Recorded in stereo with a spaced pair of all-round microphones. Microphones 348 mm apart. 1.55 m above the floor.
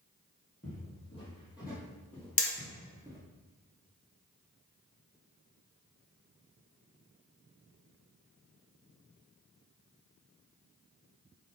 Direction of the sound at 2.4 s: 40° left (ahead or behind).